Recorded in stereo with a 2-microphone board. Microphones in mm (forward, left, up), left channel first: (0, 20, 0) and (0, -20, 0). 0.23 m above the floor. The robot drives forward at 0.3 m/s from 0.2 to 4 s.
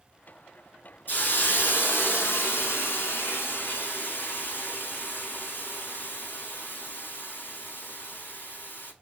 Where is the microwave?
I don't hear a microwave.